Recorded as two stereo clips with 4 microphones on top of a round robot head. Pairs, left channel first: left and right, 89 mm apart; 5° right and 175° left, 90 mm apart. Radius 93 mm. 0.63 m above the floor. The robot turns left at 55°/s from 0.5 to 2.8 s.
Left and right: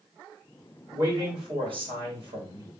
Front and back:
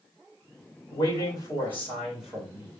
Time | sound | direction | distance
0.9 | a man speaking | 35° right | 3 m